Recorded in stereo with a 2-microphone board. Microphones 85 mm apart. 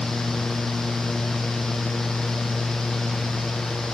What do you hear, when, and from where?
Only background noise.